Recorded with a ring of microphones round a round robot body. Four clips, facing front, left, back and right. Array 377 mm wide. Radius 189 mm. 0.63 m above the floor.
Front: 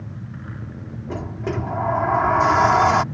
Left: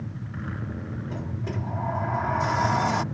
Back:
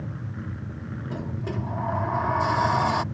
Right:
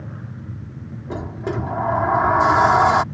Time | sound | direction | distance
1.1 | a sliding door | 55° right | ?